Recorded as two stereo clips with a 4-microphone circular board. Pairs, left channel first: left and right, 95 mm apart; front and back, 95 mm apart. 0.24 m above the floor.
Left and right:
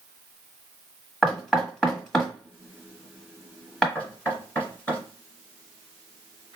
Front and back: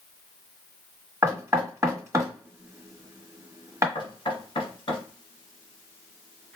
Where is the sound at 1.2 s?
170° left, 1.4 m.